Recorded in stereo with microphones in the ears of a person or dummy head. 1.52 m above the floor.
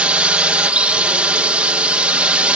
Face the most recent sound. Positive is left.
turn(degrees=-10)  # may be behind; listen again after turning